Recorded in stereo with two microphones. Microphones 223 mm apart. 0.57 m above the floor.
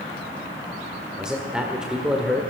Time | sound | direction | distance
1.2 | a man speaking | centre (ahead or behind) | 1.7 m